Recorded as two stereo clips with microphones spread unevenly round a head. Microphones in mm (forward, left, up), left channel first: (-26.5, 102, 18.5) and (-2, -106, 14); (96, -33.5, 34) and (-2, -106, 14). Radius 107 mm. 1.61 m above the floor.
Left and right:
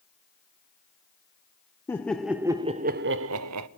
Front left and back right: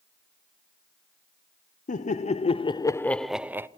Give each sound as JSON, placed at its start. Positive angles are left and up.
{"t": 1.9, "sound": "laughter", "azimuth_deg": 15, "distance_m": 1.0}